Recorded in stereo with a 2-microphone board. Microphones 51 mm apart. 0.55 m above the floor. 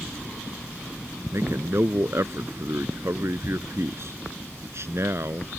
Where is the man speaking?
55° right (ahead or behind).